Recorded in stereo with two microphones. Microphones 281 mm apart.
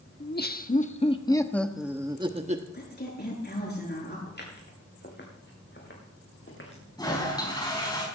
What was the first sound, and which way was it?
Laughter, 40° left (ahead or behind).